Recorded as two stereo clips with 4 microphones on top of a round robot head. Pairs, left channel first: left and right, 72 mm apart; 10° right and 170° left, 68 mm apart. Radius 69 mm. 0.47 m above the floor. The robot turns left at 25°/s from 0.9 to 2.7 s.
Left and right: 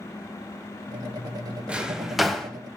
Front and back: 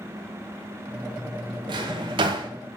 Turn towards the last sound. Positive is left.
turn(degrees=170)